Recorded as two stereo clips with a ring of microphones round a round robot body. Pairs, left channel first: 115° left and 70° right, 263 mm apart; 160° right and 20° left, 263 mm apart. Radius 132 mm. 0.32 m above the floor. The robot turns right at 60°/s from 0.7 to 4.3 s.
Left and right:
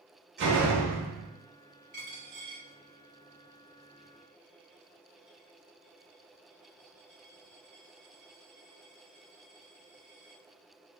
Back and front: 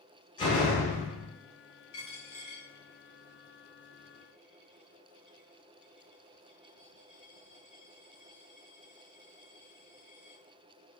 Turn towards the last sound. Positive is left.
turn(degrees=15)